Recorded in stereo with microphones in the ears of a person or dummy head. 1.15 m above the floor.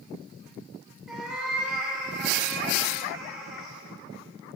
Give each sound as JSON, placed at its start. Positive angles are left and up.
{"t": 1.1, "sound": "a cat meowing", "side_deg": -5, "distance_m": 0.9}